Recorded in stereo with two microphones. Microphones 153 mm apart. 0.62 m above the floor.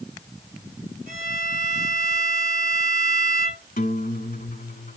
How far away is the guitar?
About 1.3 m.